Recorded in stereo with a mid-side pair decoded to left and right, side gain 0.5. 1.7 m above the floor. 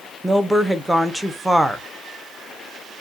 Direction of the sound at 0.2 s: 5° right.